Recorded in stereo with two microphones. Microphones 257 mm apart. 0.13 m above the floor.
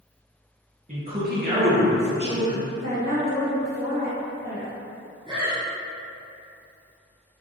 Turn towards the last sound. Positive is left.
turn(degrees=-20)  # may be behind; listen again after turning